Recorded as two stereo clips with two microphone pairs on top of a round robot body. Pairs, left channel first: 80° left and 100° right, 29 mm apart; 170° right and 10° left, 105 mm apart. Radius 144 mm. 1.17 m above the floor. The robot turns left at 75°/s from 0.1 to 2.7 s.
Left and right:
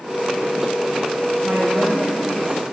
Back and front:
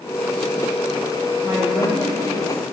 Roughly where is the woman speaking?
Ahead right.